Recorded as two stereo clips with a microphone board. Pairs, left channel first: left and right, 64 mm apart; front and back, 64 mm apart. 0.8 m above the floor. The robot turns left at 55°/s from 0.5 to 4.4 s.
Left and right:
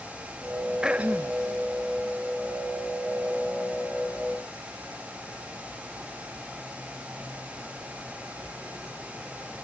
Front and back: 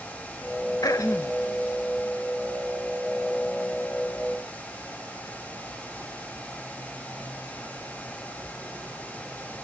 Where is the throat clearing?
10° right, 0.6 m; by 1.4 s 45° right, 0.6 m.